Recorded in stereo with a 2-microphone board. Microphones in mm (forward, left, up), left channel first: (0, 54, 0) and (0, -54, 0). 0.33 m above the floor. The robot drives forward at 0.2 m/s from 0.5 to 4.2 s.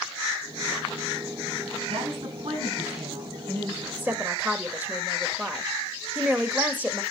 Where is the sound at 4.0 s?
15° right (ahead or behind), 1.0 m.